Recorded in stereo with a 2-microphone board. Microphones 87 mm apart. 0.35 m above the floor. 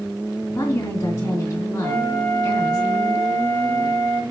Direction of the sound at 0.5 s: 30° left (ahead or behind).